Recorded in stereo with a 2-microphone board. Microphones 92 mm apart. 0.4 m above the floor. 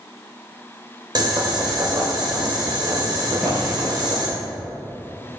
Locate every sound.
1.1 s boiling: 50° right (ahead or behind), 1.3 m
3.3 s a drawer: 5° left (ahead or behind), 2 m